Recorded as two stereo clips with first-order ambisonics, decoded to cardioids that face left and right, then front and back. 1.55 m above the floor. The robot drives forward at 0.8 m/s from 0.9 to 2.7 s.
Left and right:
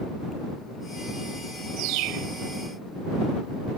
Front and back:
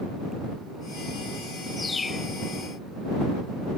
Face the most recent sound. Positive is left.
turn(degrees=-80)